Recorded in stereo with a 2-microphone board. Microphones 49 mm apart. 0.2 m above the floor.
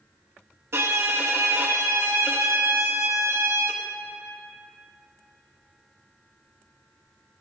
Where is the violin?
65° right (ahead or behind), 0.6 m.